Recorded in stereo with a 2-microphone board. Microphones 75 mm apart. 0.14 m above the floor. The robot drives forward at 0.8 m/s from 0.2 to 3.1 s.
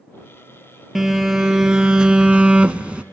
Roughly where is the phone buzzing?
Centre.